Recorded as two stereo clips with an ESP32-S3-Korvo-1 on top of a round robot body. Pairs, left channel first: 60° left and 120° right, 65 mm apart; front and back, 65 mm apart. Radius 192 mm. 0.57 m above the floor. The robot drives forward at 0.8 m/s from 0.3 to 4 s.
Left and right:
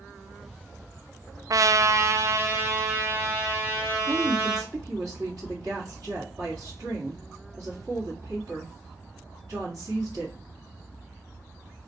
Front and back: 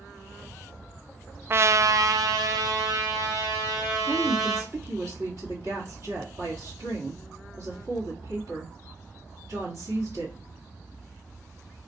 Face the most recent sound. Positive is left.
turn(degrees=-155)